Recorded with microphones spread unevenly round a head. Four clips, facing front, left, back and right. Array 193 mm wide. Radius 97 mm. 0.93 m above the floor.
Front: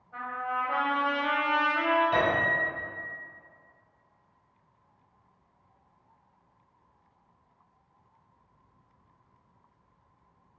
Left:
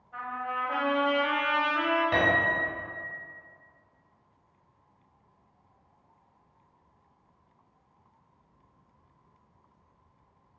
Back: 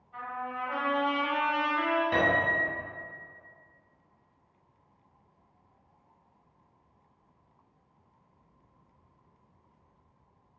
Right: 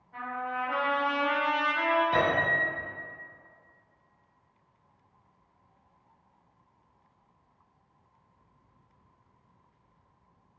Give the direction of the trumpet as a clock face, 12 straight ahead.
11 o'clock.